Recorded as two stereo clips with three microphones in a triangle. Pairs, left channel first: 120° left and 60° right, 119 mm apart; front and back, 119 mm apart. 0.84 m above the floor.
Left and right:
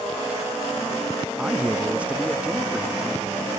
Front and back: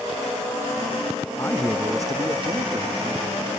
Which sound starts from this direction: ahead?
A man speaking, at 1.4 s.